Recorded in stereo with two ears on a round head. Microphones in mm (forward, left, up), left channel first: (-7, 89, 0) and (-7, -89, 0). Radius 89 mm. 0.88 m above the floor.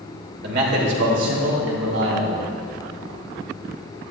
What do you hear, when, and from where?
0.4 s a man speaking: 55° right (ahead or behind), 2.5 m; by 2.4 s 75° right (ahead or behind), 4 m